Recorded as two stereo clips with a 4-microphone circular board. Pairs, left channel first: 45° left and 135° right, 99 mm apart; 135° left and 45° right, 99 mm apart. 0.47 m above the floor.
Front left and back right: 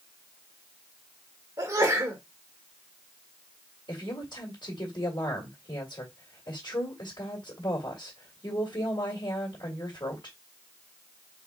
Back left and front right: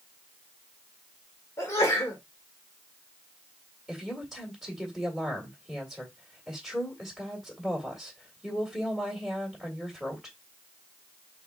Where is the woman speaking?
50° left, 1.7 m.